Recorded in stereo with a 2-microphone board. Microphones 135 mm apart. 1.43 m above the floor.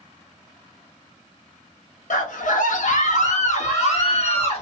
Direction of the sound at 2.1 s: 70° left (ahead or behind).